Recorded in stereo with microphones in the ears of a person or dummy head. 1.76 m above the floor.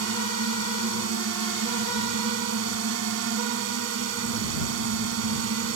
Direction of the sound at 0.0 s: 80° right.